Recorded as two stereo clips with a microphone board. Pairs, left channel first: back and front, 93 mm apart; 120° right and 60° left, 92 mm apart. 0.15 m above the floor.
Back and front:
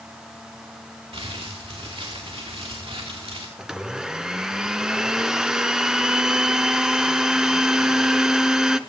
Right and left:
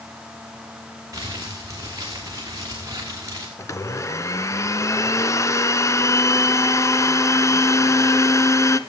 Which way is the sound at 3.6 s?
80° right.